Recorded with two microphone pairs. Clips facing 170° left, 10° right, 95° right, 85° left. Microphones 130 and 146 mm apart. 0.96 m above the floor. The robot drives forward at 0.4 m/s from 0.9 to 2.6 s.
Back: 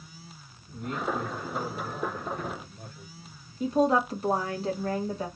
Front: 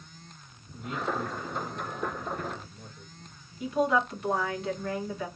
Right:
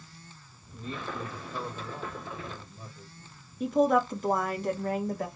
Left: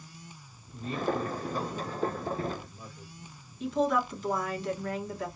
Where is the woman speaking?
135° right, 1.6 m.